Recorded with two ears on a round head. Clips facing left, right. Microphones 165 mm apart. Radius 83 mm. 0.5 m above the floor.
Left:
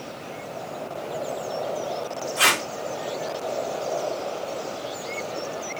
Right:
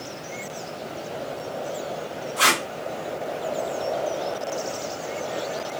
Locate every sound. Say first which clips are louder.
2.4 s tape being pulled: right 2 dB; 20° left (ahead or behind), 1.4 m